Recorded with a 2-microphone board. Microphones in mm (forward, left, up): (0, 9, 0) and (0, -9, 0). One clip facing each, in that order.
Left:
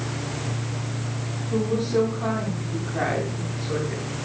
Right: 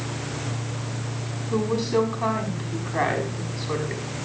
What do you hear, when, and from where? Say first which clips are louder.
1.5 s a woman speaking: even; 80° right, 6 m